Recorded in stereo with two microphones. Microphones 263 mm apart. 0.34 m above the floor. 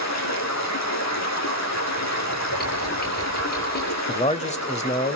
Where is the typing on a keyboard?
35° left (ahead or behind), 6.5 m.